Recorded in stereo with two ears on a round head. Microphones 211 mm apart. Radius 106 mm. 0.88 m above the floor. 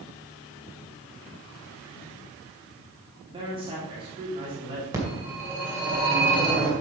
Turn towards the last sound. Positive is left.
turn(degrees=-15)  # may be behind; listen again after turning